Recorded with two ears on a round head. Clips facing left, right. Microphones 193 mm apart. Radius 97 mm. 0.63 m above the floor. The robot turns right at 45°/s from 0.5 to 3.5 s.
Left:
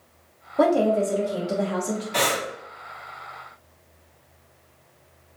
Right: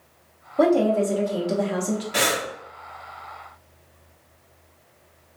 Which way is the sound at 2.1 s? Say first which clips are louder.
Even; 10° right (ahead or behind).